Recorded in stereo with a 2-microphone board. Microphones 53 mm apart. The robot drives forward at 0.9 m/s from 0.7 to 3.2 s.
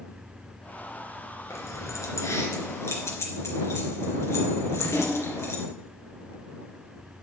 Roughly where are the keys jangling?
Left.